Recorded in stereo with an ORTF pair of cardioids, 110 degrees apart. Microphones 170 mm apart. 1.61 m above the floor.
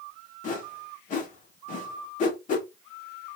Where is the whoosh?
50° left, 1.5 m.